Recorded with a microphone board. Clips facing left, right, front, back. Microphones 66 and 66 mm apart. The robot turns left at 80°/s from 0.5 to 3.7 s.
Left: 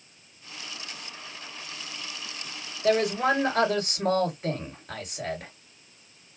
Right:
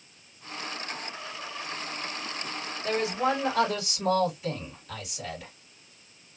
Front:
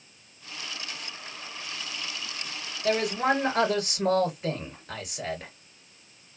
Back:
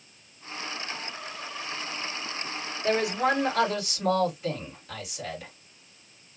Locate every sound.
2.8 s a man speaking: 115° left, 2.5 m; by 5.5 s 45° left, 2.5 m